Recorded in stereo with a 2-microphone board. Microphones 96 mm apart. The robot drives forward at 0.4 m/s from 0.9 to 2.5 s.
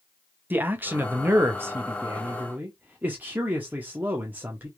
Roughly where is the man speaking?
Right.